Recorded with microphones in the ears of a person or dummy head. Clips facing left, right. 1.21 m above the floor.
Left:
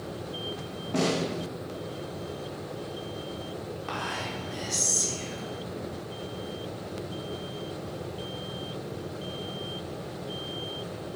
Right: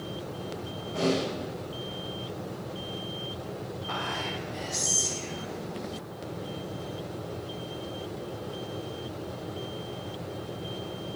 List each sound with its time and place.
0.9 s a snare drum: 70° left (ahead or behind), 1.9 m
3.9 s whispering: 75° left (ahead or behind), 4 m